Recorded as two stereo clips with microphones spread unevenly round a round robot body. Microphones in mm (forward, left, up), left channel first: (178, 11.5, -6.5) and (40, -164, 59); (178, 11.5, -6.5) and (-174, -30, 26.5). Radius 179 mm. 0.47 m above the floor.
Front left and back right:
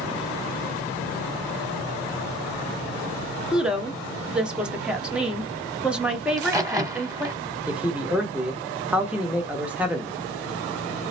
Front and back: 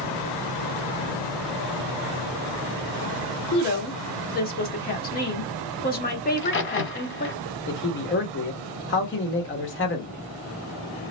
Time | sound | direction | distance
3.5 | a woman speaking | 20° right | 1.0 m
6.3 | a crack | 50° right | 1.1 m
7.7 | a man speaking | 30° right | 0.9 m